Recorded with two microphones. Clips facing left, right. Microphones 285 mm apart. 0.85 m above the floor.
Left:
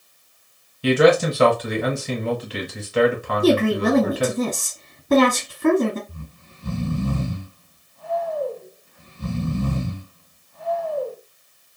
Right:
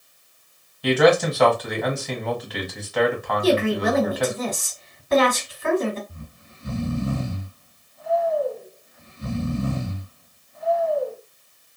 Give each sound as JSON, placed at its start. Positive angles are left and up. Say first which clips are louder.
{"t": 0.8, "sound": "a man speaking", "louder": "left 2 dB", "side_deg": 30, "distance_m": 1.3}
{"t": 3.4, "sound": "a woman speaking", "louder": "left 3 dB", "side_deg": 55, "distance_m": 1.5}
{"t": 6.1, "sound": "snoring", "louder": "left 1 dB", "side_deg": 60, "distance_m": 1.4}